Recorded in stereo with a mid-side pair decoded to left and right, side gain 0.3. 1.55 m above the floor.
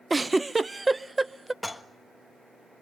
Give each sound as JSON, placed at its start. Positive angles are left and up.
{"t": 0.1, "sound": "a giggle", "azimuth_deg": -25, "distance_m": 0.7}
{"t": 1.6, "sound": "dishes clattering", "azimuth_deg": 10, "distance_m": 1.5}